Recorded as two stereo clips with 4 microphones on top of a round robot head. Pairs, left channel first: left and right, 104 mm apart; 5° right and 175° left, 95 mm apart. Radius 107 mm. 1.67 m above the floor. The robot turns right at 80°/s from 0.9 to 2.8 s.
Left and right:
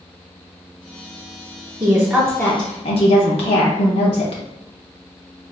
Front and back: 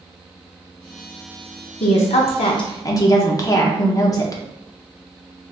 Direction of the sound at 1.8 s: 35° right.